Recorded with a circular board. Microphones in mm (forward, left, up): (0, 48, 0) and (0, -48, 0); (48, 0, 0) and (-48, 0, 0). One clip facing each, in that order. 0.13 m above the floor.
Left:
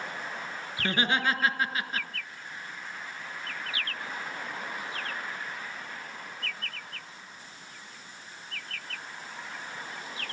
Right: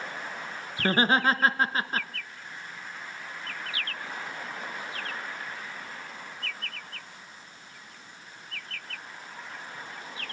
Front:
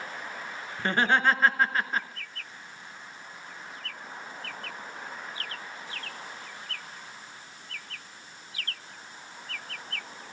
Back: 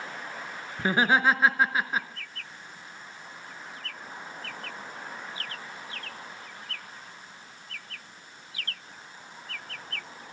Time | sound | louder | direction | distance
0.8 | laughter | right 4 dB, back 1 dB | 105° right | 1.3 m